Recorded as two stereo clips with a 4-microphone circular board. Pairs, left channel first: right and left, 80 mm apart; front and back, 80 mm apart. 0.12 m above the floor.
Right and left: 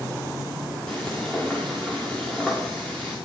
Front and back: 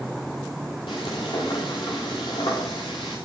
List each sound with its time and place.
0.9 s frying: 5° right, 7.5 m